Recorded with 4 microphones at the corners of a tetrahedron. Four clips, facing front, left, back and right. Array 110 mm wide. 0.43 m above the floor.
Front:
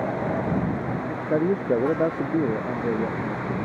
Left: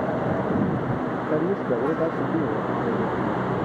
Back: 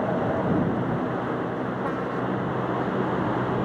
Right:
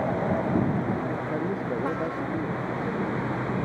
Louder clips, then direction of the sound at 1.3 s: Left 5 dB, front 6 dB; 25° left.